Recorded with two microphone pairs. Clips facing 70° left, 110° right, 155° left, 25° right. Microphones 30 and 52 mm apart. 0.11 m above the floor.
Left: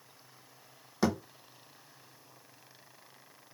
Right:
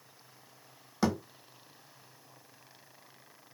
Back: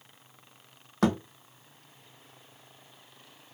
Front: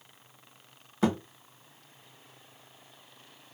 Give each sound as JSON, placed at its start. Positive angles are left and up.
{"t": 1.0, "sound": "a thud", "azimuth_deg": 160, "distance_m": 1.3}